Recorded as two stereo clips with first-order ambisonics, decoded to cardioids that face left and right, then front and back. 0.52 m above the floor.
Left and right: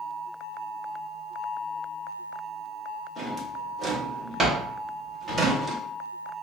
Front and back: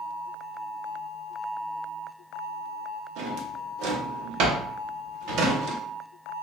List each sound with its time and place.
3.2 s a drawer: 160° right, 0.7 m